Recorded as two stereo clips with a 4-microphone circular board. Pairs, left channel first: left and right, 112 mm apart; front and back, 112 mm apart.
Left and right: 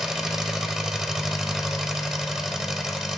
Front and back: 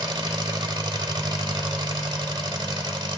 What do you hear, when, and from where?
0.0 s an engine running: 175° right, 1.0 m